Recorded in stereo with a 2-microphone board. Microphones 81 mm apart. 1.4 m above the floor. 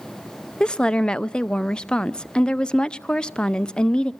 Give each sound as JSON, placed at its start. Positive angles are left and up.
{"t": 0.6, "sound": "a woman speaking", "side_deg": 10, "distance_m": 0.6}